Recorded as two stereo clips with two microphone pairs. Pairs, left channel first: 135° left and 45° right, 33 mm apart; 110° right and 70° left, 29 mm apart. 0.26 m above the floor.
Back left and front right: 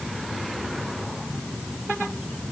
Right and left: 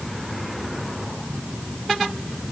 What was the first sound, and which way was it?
Only background noise.